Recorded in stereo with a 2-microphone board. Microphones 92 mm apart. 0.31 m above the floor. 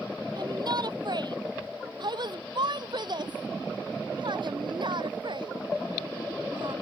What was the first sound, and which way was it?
A shout, 50° right (ahead or behind).